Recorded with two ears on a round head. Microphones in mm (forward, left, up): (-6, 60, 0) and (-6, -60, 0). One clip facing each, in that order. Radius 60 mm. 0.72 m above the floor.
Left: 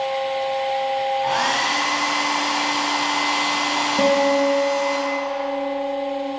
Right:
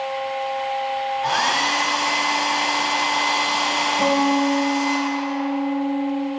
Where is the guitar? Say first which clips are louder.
Left 2 dB; 60° left (ahead or behind), 1.8 m.